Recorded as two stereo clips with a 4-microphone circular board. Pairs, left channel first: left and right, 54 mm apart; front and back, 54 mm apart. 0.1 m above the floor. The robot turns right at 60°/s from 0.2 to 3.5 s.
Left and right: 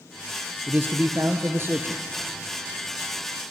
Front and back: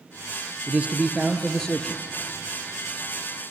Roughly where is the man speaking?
Behind right.